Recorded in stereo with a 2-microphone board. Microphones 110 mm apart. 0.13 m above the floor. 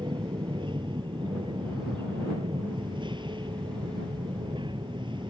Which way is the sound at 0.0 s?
45° right (ahead or behind).